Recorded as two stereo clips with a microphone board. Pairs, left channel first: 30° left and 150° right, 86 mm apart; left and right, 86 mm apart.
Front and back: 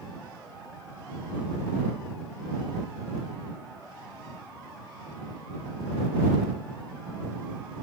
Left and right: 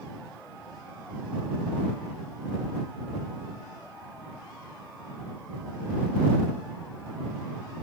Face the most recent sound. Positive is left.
No sound to turn to.